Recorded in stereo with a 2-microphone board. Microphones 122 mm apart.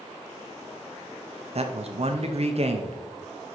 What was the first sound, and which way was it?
A man speaking, 60° right (ahead or behind).